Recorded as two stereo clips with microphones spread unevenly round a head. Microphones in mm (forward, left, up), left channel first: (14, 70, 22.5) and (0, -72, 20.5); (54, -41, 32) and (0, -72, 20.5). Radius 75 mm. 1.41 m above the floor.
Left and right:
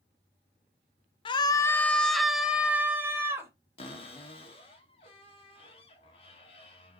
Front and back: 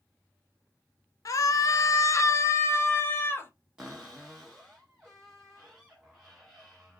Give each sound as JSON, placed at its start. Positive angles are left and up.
{"t": 1.2, "sound": "a scream", "azimuth_deg": 45, "distance_m": 0.5}
{"t": 3.8, "sound": "a cupboard door", "azimuth_deg": 120, "distance_m": 1.2}